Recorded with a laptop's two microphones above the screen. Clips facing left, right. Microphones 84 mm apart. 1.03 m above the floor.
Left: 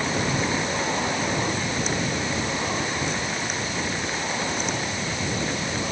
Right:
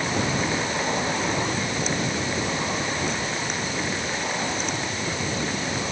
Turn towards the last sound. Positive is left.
No sound to turn to.